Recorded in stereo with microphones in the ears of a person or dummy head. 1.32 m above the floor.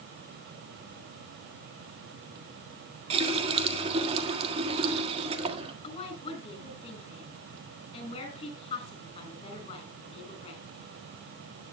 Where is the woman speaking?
35° left (ahead or behind), 6 m.